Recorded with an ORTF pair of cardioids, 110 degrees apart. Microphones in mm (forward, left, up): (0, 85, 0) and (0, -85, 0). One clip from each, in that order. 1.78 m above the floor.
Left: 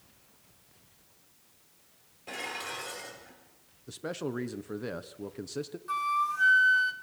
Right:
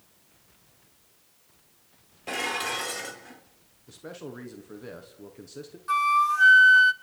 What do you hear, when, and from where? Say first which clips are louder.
2.3 s dishes clattering: right 8 dB; 45° right, 3.5 m
3.9 s a man speaking: left 5 dB; 35° left, 1.5 m
5.9 s a flute: right 7 dB; 30° right, 1.1 m